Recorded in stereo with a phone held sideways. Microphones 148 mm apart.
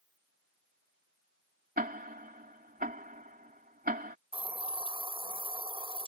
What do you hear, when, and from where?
1.8 s ticking: 75° right (ahead or behind)
4.3 s a hiss: 35° right (ahead or behind)